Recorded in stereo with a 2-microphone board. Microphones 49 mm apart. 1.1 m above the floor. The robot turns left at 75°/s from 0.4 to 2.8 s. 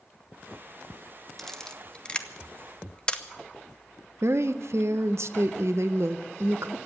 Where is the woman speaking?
65° right (ahead or behind), 0.6 m.